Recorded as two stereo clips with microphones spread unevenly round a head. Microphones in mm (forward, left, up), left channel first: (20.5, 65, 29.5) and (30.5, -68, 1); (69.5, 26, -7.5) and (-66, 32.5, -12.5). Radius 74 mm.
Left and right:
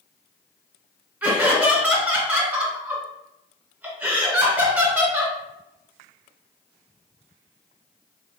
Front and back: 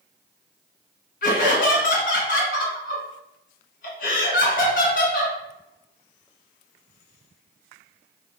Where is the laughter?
15° right, 1.4 m.